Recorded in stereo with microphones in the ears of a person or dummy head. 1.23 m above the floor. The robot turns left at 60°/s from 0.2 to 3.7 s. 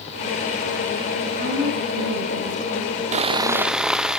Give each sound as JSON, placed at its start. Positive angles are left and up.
{"t": 1.2, "sound": "a woman speaking", "azimuth_deg": -45, "distance_m": 9.5}
{"t": 3.1, "sound": "sawing", "azimuth_deg": -145, "distance_m": 0.8}